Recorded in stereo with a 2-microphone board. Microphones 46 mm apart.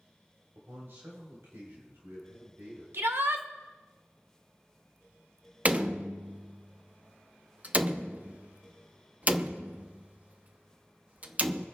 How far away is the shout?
About 1.3 m.